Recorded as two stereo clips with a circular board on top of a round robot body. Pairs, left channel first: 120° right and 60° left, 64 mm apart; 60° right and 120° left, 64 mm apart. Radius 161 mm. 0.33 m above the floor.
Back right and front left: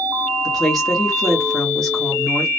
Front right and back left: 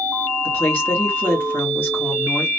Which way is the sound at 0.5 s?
40° right.